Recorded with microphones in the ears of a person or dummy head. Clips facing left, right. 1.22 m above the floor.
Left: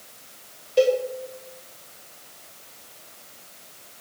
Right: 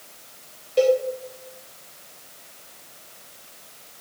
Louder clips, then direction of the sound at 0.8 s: Right 1 dB; 5° left (ahead or behind).